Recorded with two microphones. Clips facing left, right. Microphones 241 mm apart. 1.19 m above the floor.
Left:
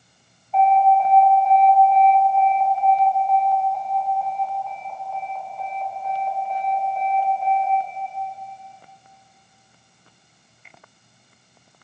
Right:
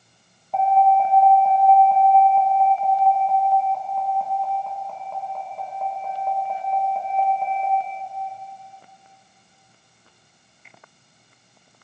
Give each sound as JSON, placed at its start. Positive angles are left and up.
{"t": 0.5, "sound": "an alarm", "side_deg": -60, "distance_m": 2.5}